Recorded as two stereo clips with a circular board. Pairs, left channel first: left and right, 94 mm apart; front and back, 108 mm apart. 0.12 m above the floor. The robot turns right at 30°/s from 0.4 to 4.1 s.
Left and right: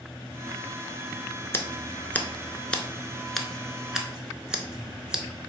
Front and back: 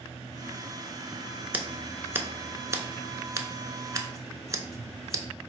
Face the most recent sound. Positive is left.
turn(degrees=-165)